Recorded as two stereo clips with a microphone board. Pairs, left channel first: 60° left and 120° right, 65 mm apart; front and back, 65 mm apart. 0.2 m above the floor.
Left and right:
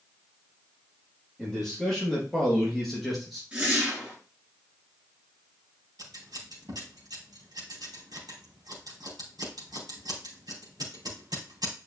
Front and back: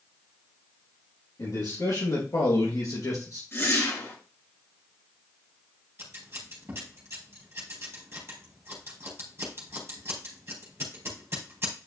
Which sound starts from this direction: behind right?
Scissors, at 6.0 s.